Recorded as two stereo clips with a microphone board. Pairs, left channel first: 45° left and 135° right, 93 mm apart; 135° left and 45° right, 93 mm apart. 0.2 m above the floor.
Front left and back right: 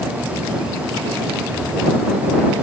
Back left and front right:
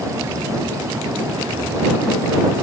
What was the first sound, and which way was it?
Only background noise.